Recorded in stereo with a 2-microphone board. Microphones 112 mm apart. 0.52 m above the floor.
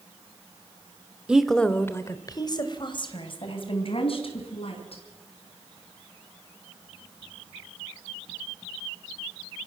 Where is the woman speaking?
10° right (ahead or behind), 1.3 m; by 5.0 s 60° left (ahead or behind), 5 m.